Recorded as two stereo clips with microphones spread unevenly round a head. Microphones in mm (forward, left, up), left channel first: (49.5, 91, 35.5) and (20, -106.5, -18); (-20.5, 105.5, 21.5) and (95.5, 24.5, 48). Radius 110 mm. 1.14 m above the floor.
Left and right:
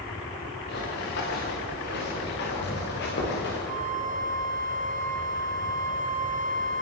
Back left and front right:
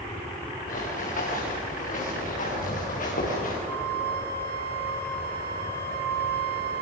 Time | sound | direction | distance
0.7 | running footsteps | 120° left | 7 m
3.7 | a flute | 45° right | 1.9 m